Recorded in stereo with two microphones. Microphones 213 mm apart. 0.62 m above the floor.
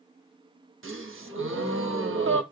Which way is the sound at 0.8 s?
70° right (ahead or behind).